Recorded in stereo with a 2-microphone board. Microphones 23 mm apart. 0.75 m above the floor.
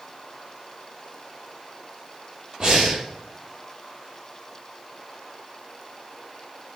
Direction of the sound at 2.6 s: 40° right (ahead or behind).